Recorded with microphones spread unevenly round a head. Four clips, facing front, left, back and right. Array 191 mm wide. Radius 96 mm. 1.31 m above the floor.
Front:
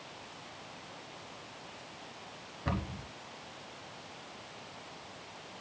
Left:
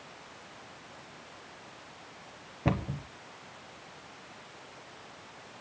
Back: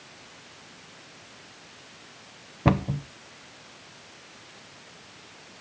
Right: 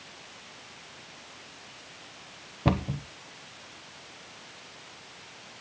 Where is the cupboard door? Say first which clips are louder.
Right 4 dB, back 13 dB; 170° right, 0.9 m.